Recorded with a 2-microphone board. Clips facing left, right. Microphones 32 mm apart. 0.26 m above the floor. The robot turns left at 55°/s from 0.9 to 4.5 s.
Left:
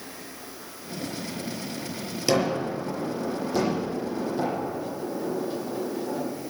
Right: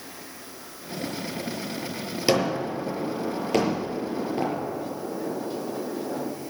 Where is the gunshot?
20° right (ahead or behind), 6 m; by 6.3 s 40° right (ahead or behind), 6 m.